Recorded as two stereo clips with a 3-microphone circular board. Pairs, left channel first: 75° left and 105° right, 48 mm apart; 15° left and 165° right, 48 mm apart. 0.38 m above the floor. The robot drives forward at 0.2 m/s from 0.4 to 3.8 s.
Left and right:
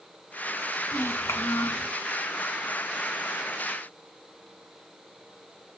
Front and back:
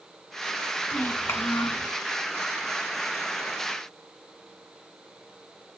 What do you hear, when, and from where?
0.9 s a child speaking: 50° left, 2 m; by 1.9 s 55° left, 1.9 m